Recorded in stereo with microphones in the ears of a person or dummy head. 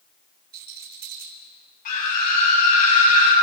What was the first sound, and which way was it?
A rattle, 55° right (ahead or behind).